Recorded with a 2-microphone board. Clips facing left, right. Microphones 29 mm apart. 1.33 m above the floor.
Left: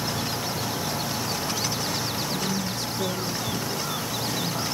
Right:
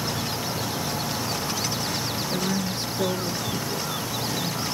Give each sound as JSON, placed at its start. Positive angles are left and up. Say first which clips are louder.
{"t": 2.3, "sound": "a woman speaking", "louder": "right 1 dB", "side_deg": -60, "distance_m": 2.0}